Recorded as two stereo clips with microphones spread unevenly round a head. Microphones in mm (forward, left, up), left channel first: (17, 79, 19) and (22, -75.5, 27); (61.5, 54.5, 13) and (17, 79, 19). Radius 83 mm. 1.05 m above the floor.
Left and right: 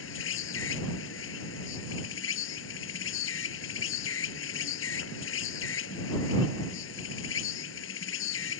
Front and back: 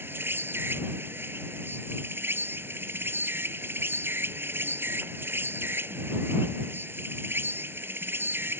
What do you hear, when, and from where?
0.0 s an insect: 105° left